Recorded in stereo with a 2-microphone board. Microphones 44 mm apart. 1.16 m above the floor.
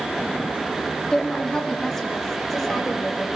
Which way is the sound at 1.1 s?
20° left (ahead or behind).